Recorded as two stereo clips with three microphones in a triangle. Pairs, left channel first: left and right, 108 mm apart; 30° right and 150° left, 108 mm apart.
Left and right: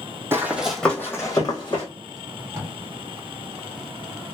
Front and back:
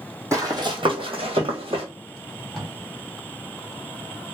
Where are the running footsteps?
150° right, 0.8 m; by 1.9 s 125° left, 1.2 m.